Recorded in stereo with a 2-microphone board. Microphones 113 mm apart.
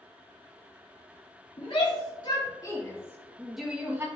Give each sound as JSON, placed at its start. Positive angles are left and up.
{"t": 1.6, "sound": "a shout", "side_deg": 55, "distance_m": 3.0}